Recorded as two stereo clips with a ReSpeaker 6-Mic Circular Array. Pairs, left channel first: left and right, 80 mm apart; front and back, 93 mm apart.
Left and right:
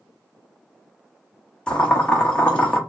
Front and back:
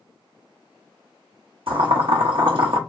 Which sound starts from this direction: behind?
Boiling, at 1.7 s.